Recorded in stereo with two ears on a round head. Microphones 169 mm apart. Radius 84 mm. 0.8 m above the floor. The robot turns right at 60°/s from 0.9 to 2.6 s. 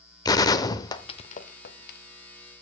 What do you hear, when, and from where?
0.2 s a gunshot: 20° left (ahead or behind), 0.6 m; by 2.0 s 50° left (ahead or behind), 0.6 m